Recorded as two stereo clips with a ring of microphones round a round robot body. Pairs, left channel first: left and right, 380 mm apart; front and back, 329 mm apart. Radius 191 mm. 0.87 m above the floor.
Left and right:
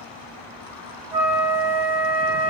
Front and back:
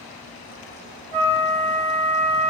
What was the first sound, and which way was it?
A flute, 165° right.